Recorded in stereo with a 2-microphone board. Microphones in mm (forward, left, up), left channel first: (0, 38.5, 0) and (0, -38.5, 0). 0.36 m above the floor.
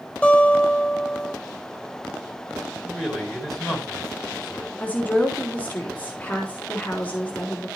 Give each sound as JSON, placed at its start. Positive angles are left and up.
{"t": 0.2, "sound": "a guitar", "side_deg": 10, "distance_m": 2.5}
{"t": 2.8, "sound": "a man speaking", "side_deg": 0, "distance_m": 5.0}
{"t": 4.8, "sound": "a woman speaking", "side_deg": 20, "distance_m": 3.5}